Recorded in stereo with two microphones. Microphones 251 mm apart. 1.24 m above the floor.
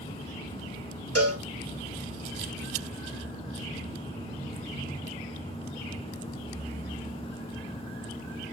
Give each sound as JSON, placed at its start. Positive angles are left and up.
{"t": 1.1, "sound": "a cowbell", "side_deg": -70, "distance_m": 1.2}